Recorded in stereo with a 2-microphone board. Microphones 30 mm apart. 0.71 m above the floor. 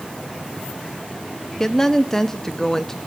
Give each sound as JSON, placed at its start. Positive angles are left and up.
{"t": 1.6, "sound": "a woman speaking", "side_deg": 15, "distance_m": 1.1}